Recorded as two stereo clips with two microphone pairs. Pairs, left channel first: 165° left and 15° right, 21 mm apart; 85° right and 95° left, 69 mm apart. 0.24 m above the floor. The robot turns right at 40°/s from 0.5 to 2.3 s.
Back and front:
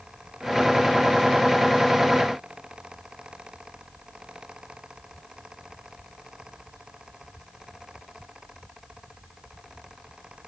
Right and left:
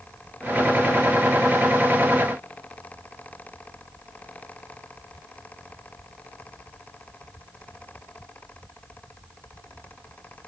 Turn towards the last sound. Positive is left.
No sound to turn to.